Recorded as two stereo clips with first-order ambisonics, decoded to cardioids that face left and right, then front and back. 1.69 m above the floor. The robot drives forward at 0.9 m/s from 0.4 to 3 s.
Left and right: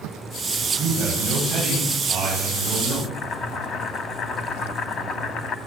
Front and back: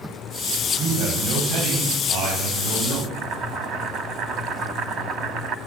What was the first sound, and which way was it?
A man speaking, 150° right.